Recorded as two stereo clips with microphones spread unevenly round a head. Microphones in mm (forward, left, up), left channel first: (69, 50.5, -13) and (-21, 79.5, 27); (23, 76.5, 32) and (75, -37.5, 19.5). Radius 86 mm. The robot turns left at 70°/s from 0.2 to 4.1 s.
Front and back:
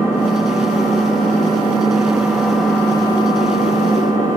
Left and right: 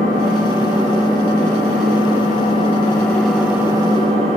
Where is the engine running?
115° right, 1.3 m; by 4.4 s 25° right, 1.3 m.